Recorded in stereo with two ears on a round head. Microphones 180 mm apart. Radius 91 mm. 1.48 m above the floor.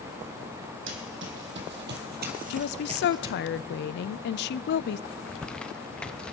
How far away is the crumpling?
About 0.6 m.